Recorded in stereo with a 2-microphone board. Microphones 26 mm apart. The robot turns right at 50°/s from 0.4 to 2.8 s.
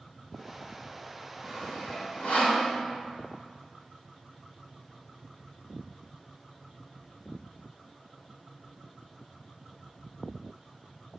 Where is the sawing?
10° left (ahead or behind), 3 m; by 2.6 s 70° left (ahead or behind), 3 m.